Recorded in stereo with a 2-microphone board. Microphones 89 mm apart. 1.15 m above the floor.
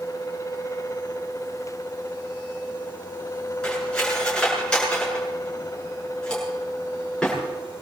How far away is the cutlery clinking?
About 8 m.